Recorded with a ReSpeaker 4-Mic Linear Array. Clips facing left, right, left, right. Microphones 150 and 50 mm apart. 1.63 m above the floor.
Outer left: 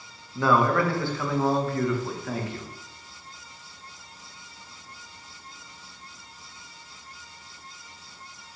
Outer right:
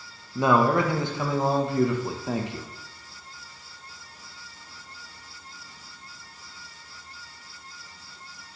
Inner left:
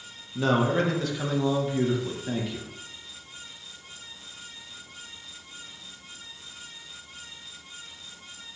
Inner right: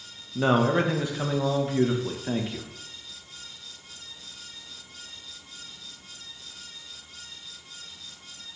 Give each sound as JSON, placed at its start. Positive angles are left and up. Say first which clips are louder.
{"t": 0.3, "sound": "a man speaking", "louder": "outer right 1 dB, inner right 2 dB", "side_deg": -20, "distance_m": 0.5}